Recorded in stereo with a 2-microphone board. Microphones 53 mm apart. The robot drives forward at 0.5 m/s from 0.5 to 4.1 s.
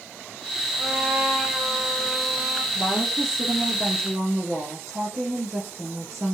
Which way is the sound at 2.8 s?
55° right (ahead or behind).